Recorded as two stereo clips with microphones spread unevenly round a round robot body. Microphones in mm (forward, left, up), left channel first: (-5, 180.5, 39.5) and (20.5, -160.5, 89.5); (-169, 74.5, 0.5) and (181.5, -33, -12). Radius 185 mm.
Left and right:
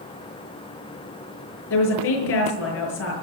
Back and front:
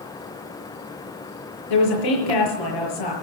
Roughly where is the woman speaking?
Behind left.